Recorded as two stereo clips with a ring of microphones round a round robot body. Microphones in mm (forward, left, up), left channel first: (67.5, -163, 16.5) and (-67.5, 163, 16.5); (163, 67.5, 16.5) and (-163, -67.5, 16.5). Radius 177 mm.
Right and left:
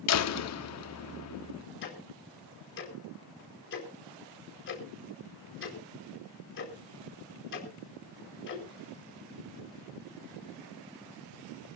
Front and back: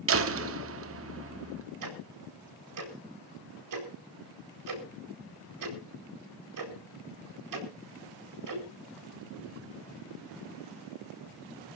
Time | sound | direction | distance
0.1 | a door slam | 110° right | 1.3 m
1.8 | ticking | 125° right | 4.5 m